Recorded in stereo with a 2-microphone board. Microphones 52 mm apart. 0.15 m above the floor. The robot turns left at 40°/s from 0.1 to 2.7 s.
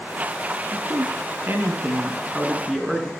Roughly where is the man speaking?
Right.